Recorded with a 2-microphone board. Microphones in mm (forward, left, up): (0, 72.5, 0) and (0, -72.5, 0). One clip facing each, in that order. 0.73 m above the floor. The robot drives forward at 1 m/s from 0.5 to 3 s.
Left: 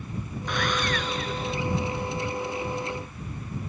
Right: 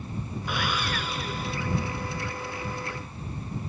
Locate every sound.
0.5 s sawing: 5° right (ahead or behind)